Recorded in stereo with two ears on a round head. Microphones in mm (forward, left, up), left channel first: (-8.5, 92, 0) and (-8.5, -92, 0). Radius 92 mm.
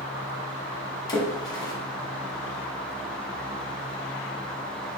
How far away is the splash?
About 1.2 m.